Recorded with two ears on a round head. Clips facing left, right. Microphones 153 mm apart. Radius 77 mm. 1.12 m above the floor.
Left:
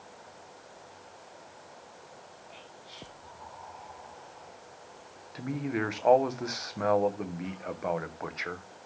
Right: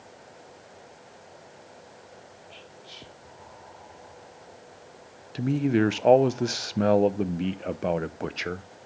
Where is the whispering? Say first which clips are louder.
Right 2 dB; 35° right (ahead or behind), 2.5 m.